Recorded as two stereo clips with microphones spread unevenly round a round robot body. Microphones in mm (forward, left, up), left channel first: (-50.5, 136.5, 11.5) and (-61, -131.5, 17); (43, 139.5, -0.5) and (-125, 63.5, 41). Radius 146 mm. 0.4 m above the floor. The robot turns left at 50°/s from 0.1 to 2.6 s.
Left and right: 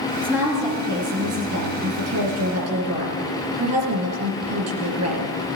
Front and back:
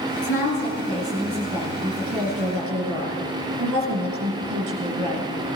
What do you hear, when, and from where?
0.2 s a woman speaking: straight ahead, 5 m; by 5.3 s 115° right, 5 m